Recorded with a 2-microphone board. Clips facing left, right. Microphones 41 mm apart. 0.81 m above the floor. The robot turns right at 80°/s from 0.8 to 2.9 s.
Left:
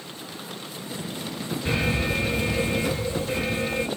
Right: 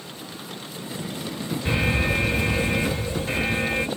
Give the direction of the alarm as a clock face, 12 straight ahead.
6 o'clock.